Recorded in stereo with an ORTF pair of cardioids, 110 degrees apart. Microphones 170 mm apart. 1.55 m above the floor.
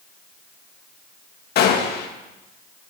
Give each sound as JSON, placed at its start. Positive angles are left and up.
{"t": 1.6, "sound": "a gunshot", "azimuth_deg": 70, "distance_m": 2.0}